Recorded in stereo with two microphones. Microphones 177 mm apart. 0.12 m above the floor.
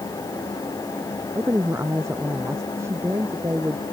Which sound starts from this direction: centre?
A woman speaking, at 1.4 s.